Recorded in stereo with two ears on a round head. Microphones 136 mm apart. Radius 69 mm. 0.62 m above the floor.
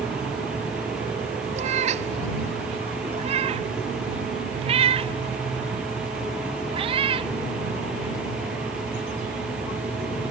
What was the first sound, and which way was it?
A cat meowing, 50° right (ahead or behind).